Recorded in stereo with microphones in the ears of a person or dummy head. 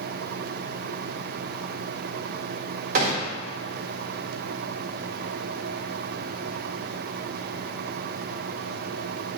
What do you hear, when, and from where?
3.0 s a gunshot: 50° right (ahead or behind), 0.9 m